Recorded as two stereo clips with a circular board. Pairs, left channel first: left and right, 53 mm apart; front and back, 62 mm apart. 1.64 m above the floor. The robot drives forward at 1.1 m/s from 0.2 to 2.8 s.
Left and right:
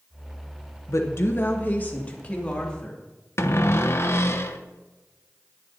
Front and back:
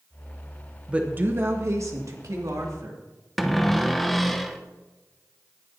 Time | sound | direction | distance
0.9 | a woman speaking | 105° left | 1.0 m
3.4 | a cupboard door | 90° left | 0.8 m